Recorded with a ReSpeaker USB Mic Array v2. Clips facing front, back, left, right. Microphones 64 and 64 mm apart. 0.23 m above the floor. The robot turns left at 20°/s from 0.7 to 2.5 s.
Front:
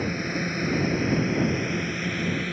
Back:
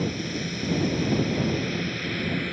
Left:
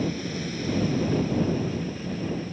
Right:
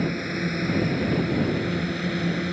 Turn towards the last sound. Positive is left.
turn(degrees=-90)